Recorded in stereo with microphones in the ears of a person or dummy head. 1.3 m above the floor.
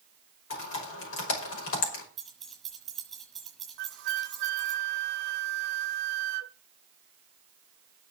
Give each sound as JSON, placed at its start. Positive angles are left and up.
{"t": 0.5, "sound": "typing on a keyboard", "side_deg": 80, "distance_m": 5.0}
{"t": 2.2, "sound": "keys jangling", "side_deg": 10, "distance_m": 6.5}
{"t": 3.8, "sound": "a flute", "side_deg": -70, "distance_m": 0.9}